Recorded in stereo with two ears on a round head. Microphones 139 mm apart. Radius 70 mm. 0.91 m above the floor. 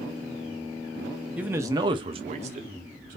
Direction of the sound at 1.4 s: 10° right (ahead or behind).